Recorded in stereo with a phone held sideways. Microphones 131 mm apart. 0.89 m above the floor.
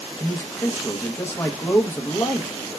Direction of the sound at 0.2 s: 20° left (ahead or behind).